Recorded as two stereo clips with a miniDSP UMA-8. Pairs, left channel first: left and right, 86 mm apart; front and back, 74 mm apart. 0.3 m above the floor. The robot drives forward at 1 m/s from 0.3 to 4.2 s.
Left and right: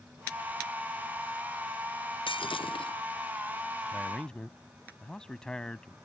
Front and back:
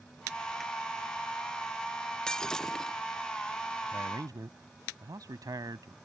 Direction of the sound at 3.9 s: 165° left.